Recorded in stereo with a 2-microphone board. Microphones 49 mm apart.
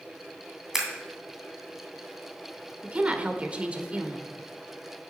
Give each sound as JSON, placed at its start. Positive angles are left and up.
{"t": 0.7, "sound": "scissors", "side_deg": -10, "distance_m": 2.5}
{"t": 2.8, "sound": "a woman speaking", "side_deg": -25, "distance_m": 1.1}